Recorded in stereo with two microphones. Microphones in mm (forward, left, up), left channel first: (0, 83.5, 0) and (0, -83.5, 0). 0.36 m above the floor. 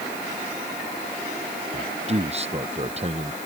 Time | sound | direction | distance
1.7 | a man speaking | 35° right (ahead or behind) | ?